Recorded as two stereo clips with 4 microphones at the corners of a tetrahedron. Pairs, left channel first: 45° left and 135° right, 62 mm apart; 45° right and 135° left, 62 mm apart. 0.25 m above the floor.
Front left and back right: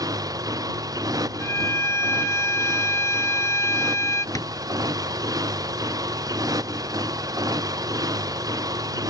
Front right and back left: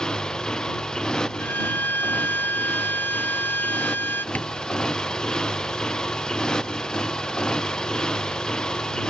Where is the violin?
10° left.